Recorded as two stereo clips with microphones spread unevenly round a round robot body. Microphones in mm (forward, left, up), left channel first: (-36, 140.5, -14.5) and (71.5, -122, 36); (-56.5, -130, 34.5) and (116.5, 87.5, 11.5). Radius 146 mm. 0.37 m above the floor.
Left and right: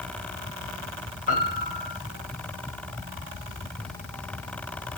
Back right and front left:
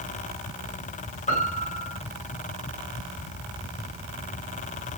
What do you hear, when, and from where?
1.3 s a piano: 165° left, 2 m